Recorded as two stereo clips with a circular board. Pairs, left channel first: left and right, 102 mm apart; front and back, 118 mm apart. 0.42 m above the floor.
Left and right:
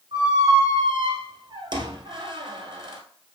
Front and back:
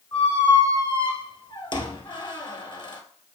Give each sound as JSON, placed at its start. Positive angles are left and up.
{"t": 0.1, "sound": "a squeak", "azimuth_deg": -50, "distance_m": 1.4}